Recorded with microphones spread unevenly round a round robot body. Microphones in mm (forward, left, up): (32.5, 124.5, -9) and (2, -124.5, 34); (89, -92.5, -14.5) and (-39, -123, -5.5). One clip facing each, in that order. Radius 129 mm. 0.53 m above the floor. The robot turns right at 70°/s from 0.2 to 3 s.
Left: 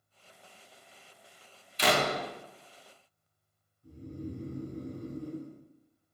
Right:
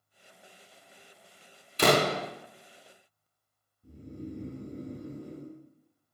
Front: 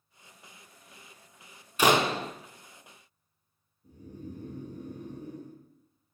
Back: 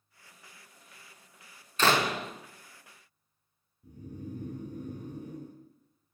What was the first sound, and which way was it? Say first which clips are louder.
A door slam: right 5 dB, front 3 dB; 60° right.